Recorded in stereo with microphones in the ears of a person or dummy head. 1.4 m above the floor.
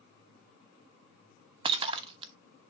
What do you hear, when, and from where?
1.6 s breaking glass: 30° right (ahead or behind), 1.1 m